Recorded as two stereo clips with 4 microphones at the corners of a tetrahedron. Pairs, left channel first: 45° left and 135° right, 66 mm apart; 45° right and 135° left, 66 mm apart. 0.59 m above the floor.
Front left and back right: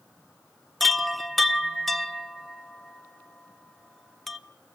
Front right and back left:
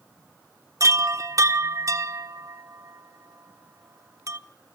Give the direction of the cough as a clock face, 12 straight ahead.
I don't hear a cough.